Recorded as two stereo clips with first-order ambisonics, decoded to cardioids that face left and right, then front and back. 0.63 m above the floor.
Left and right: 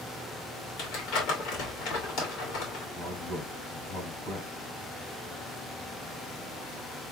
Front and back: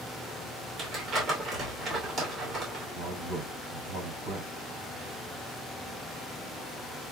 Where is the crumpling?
125° left, 2.5 m.